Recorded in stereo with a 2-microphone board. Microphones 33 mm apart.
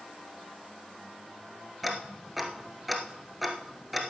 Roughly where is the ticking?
Centre.